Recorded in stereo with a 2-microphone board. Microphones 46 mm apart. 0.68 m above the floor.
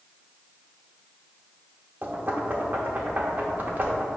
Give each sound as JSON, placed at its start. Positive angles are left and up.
{"t": 2.0, "sound": "knocking", "side_deg": -40, "distance_m": 1.0}